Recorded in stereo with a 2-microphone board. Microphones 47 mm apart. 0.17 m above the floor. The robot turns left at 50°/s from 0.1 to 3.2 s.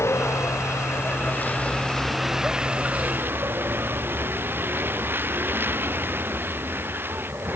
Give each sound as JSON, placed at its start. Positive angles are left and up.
{"t": 0.0, "sound": "a vehicle", "azimuth_deg": 105}